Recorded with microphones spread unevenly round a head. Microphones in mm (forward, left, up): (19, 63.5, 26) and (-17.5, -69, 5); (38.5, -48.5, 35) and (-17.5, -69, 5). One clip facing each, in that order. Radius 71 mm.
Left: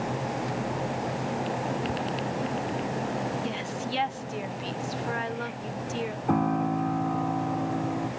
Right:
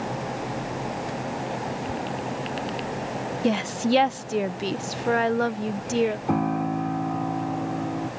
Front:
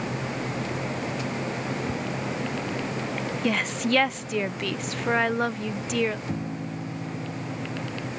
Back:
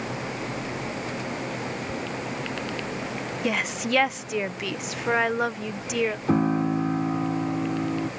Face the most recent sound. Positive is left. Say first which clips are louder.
# right 1 dB, back 10 dB
turn(degrees=170)